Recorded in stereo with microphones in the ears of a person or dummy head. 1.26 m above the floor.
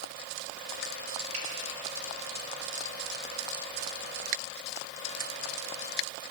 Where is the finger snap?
40° right (ahead or behind), 3 m.